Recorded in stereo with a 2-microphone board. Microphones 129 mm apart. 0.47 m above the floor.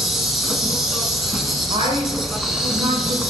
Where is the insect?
Centre (ahead or behind), 1.1 m.